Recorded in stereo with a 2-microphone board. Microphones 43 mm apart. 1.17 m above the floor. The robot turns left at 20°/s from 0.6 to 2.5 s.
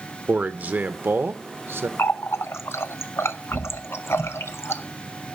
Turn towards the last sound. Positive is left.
turn(degrees=80)